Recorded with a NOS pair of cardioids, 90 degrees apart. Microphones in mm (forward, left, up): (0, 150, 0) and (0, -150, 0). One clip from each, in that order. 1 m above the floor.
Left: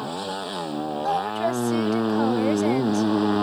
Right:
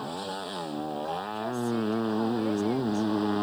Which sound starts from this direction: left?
A woman speaking, at 1.0 s.